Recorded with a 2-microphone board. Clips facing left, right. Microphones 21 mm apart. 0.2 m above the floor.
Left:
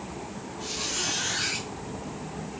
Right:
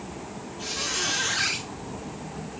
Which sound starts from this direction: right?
A squeak, at 0.6 s.